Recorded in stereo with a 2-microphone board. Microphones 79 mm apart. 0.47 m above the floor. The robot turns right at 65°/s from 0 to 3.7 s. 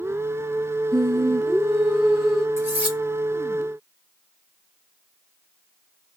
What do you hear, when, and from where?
0.9 s singing: 90° right, 1.4 m; by 2.5 s 10° left, 1.4 m
2.6 s cutlery clinking: 35° right (ahead or behind), 1.9 m; by 3.0 s 5° right (ahead or behind), 1.9 m